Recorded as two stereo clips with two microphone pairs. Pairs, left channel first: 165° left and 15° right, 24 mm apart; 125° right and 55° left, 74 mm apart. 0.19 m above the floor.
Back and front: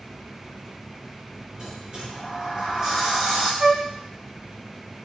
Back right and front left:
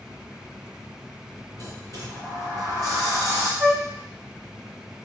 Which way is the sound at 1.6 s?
40° left.